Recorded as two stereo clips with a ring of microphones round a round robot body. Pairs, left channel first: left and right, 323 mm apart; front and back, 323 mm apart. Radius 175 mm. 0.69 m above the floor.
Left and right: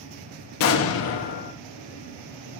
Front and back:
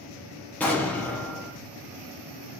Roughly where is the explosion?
Left.